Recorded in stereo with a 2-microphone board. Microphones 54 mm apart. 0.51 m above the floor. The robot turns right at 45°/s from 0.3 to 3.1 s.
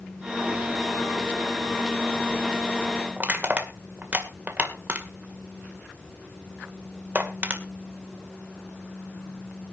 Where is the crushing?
30° right (ahead or behind), 2 m.